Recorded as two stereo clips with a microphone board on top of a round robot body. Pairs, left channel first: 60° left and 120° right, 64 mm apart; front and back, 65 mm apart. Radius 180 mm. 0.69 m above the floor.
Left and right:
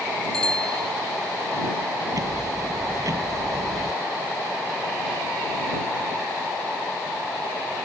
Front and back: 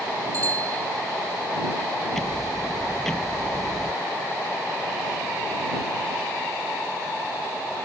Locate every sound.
0.3 s a bicycle bell: 140° left
2.1 s ticking: 85° right